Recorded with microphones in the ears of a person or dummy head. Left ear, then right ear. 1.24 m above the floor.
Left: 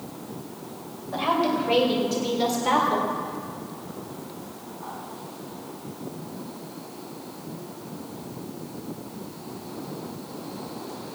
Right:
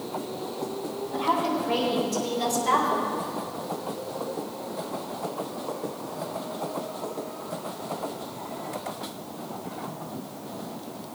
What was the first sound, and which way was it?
A woman speaking, 55° left (ahead or behind).